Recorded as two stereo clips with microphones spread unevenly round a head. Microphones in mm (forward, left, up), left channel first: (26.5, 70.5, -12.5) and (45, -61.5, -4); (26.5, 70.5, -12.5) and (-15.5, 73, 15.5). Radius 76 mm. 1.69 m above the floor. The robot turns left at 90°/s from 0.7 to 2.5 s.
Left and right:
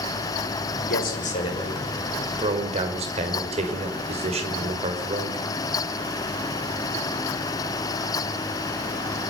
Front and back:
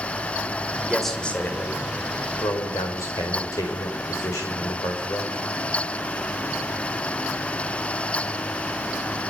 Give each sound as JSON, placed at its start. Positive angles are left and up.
{"t": 0.9, "sound": "a man speaking", "azimuth_deg": 100, "distance_m": 5.5}